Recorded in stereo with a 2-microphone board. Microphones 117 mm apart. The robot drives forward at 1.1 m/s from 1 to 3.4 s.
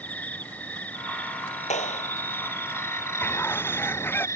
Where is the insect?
10° left (ahead or behind); by 4.4 s 25° left (ahead or behind).